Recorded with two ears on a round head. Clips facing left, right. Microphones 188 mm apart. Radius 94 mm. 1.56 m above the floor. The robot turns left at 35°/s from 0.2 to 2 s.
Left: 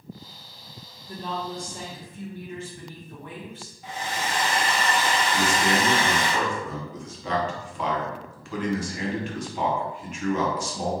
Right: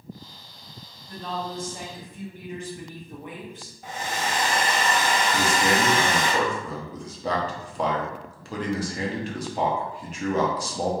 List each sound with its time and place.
1.1 s a woman speaking: 15° left, 0.9 m; by 3.7 s 15° right, 0.9 m
3.8 s a hair dryer: 40° right (ahead or behind), 0.7 m
5.3 s a man speaking: 30° right (ahead or behind), 0.7 m